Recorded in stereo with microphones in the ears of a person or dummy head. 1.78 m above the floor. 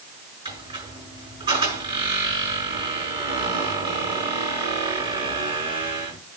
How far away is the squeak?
About 6.5 m.